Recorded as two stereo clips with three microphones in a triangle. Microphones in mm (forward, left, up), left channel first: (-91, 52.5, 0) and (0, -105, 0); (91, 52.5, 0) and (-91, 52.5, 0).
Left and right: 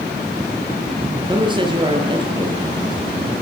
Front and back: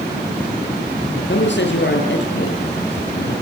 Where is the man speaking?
5° left, 6 m.